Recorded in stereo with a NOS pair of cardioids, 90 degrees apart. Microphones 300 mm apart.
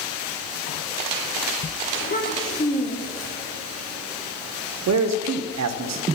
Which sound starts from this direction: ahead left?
A child speaking, at 1.9 s.